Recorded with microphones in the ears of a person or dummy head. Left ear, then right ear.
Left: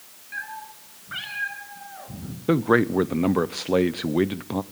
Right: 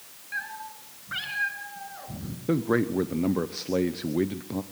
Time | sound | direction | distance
0.3 | a cat meowing | 15° right (ahead or behind) | 5 m
2.5 | a man speaking | 25° left (ahead or behind) | 0.6 m